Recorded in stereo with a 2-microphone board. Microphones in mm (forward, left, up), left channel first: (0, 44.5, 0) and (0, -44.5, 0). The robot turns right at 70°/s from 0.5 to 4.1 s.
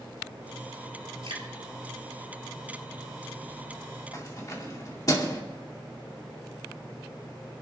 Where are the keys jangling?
45° left (ahead or behind), 2.5 m.